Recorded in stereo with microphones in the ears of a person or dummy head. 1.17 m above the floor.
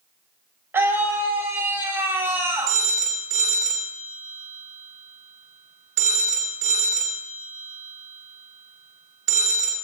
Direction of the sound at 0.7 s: 10° right (ahead or behind).